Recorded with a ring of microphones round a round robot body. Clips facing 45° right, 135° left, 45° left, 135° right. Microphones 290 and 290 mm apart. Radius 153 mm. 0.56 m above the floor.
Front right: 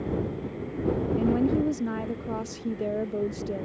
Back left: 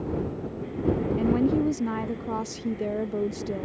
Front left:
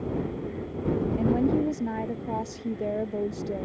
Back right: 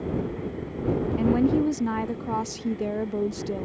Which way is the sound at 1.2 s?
155° right.